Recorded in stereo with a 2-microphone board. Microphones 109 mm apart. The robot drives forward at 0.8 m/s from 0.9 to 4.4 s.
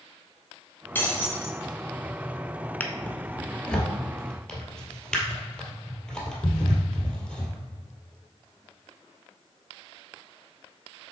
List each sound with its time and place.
0.9 s breaking glass: 15° left (ahead or behind), 2.5 m; by 1.6 s 20° left (ahead or behind), 1.9 m
2.8 s a drawer: 15° left (ahead or behind), 0.8 m; by 7.6 s 5° left (ahead or behind), 2 m